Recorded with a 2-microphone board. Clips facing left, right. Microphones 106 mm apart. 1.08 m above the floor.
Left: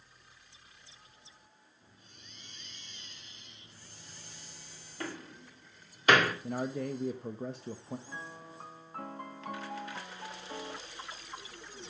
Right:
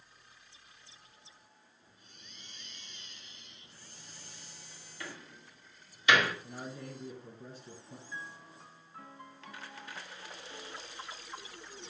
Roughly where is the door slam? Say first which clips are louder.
Left 6 dB; left.